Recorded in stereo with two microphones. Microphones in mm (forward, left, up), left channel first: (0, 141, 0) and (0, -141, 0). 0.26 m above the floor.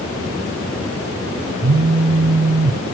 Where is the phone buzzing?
75° right (ahead or behind), 0.8 m.